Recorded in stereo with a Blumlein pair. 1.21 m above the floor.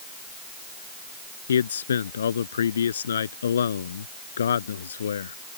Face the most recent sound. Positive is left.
turn(degrees=65)